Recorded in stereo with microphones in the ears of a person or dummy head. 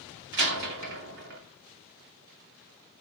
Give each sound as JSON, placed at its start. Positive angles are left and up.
{"t": 0.3, "sound": "a door slam", "side_deg": -60, "distance_m": 2.0}